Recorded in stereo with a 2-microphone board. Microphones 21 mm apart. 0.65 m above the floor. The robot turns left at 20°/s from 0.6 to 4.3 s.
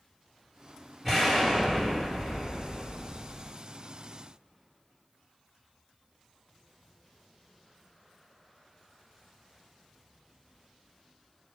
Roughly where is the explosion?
Ahead.